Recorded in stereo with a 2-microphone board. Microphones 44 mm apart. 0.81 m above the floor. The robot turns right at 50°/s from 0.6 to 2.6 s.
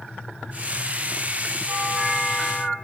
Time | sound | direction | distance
1.7 | a doorbell | 30° right | 3.5 m